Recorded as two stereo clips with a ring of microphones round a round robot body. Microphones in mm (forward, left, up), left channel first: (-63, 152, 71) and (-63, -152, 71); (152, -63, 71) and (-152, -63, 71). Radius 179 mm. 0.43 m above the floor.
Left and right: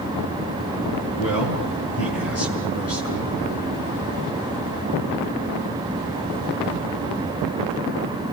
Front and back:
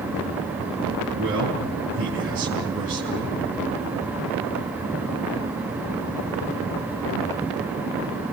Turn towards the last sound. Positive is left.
turn(degrees=130)